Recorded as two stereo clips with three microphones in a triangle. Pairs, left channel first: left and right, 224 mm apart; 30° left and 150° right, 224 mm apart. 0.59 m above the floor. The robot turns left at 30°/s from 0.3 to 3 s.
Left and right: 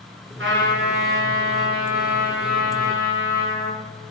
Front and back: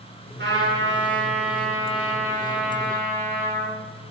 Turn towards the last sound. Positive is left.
turn(degrees=165)